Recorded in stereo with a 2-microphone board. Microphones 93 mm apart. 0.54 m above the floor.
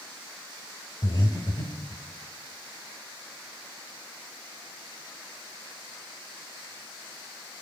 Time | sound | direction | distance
1.0 | breathing | 55° left (ahead or behind) | 1.2 m